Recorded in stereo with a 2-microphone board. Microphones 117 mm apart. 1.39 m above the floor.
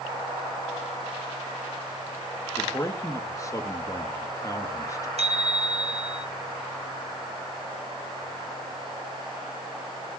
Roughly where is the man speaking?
Left.